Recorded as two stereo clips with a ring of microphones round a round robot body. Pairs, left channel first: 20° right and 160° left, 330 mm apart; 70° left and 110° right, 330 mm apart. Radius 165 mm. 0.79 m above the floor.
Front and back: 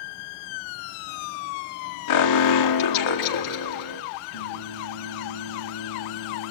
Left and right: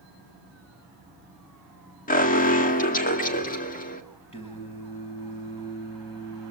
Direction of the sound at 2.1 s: 5° left.